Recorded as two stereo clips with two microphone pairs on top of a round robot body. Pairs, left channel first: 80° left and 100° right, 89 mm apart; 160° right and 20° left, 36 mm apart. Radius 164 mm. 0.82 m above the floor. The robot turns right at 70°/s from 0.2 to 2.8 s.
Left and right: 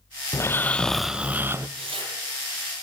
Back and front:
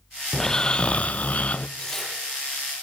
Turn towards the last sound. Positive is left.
turn(degrees=-20)